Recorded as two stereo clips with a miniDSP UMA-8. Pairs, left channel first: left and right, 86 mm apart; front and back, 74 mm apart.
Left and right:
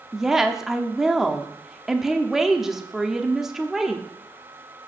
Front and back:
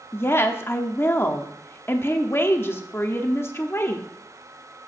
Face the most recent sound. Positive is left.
turn(degrees=-10)